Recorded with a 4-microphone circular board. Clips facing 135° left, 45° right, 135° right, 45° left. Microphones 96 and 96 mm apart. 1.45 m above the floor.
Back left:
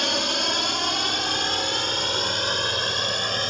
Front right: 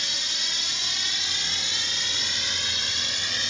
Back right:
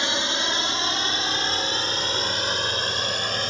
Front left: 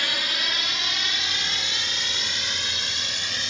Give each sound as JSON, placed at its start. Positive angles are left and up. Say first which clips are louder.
{"t": 0.0, "sound": "a drone", "louder": "back left 13 dB, back right 4 dB", "azimuth_deg": 160}